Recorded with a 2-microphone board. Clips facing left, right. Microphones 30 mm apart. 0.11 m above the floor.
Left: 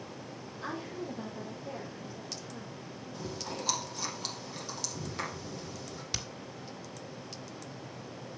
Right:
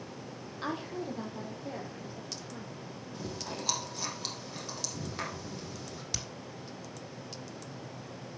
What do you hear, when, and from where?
0.6 s a woman speaking: 45° right (ahead or behind), 3 m; by 2.7 s 20° right (ahead or behind), 4.5 m
3.1 s chewing: 5° right (ahead or behind), 4 m
6.1 s hammering: 15° left (ahead or behind), 1.7 m